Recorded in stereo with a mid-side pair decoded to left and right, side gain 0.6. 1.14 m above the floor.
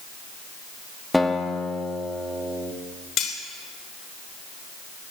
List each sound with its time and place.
1.1 s a guitar: 5° left, 2 m
3.2 s cutlery clinking: 55° left, 3 m